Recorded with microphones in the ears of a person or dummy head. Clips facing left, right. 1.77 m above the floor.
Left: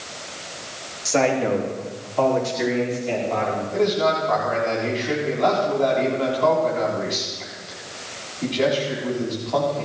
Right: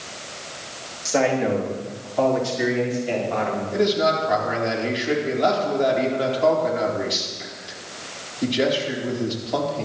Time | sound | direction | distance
1.1 | a man speaking | 5° right (ahead or behind) | 3 m
3.7 | a man speaking | 20° right (ahead or behind) | 4 m